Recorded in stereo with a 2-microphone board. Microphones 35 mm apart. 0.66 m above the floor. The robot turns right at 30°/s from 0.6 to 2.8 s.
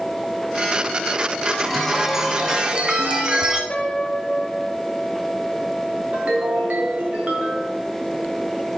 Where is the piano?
40° left (ahead or behind), 0.9 m.